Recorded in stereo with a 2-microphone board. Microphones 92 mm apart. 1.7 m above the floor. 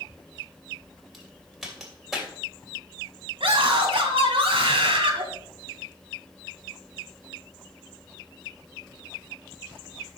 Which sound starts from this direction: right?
A scream, at 3.4 s.